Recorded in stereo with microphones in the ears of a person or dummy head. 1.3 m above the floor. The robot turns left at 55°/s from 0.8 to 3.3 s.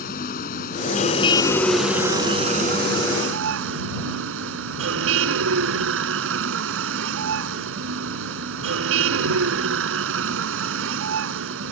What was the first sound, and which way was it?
A vehicle, 55° left.